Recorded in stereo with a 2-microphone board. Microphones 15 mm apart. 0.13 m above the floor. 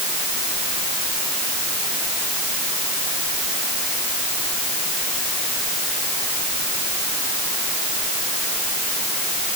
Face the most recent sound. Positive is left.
No sound to turn to.